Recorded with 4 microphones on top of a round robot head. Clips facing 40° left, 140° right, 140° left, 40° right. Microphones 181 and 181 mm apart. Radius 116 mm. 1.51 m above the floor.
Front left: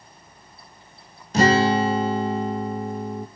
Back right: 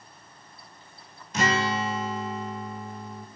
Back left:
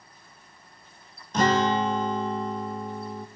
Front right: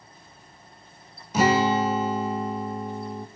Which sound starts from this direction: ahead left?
A guitar, at 1.3 s.